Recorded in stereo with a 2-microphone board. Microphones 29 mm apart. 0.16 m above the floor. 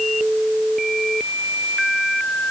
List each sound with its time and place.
Only background noise.